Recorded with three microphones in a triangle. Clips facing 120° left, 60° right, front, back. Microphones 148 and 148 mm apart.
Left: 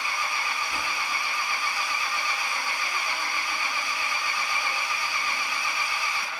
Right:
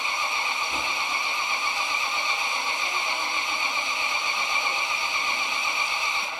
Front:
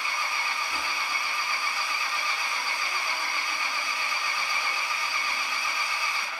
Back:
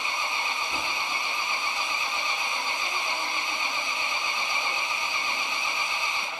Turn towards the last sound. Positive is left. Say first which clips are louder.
# right 1 dB, back 1 dB
turn(degrees=-120)